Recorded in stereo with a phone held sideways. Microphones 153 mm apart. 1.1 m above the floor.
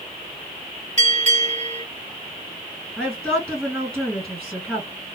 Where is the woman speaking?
10° right (ahead or behind), 2 m.